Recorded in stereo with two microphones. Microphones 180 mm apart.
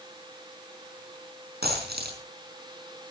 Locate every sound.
1.6 s a dropped coin: 75° right (ahead or behind), 4.5 m